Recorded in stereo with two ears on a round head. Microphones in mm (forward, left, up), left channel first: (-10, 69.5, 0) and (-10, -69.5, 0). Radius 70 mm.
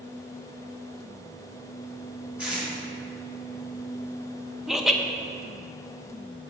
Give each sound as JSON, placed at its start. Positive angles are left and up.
{"t": 2.4, "sound": "tape being pulled", "side_deg": -10, "distance_m": 3.0}
{"t": 4.7, "sound": "laughter", "side_deg": -5, "distance_m": 0.8}